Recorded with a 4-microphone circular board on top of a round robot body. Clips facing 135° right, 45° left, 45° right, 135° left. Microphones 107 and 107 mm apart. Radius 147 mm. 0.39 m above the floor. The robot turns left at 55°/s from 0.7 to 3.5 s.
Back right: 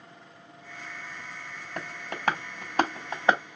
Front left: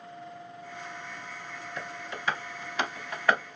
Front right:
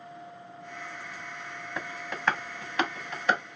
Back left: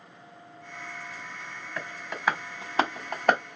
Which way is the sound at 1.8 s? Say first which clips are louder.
Back right 3 dB, even; 115° right.